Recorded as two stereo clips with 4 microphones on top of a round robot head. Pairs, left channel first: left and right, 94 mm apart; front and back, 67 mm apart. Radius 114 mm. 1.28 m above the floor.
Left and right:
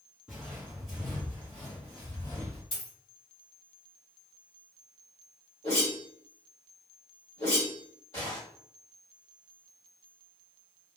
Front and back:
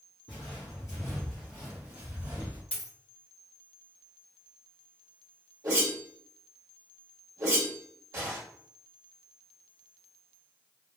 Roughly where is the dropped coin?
Ahead left.